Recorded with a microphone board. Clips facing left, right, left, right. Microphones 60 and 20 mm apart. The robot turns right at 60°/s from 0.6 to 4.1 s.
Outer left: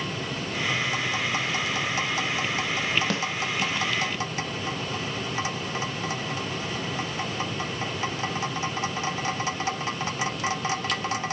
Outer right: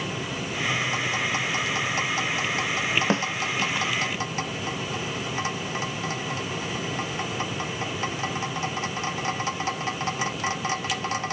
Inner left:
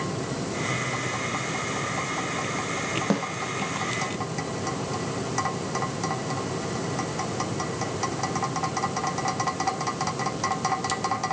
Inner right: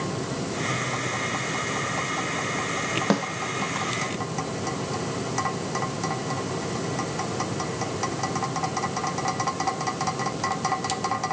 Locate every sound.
3.1 s a snare drum: 30° right (ahead or behind), 1.8 m; by 3.2 s 40° right (ahead or behind), 1.8 m